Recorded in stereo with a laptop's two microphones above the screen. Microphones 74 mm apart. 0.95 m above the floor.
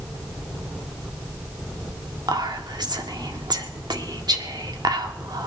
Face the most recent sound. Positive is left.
turn(degrees=-70)  # may be behind; listen again after turning